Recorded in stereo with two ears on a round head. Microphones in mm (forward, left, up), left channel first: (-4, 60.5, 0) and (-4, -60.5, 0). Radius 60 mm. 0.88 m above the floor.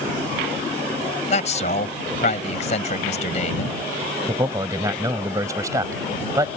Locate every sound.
1.3 s a man speaking: 50° left (ahead or behind)
4.3 s a man speaking: 25° right (ahead or behind)